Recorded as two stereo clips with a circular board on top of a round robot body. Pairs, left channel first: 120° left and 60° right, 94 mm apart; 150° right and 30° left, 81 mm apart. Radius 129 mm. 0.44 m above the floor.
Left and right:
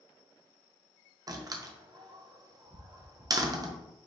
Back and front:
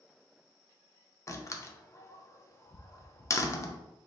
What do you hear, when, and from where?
1.3 s a door slam: 100° right, 0.7 m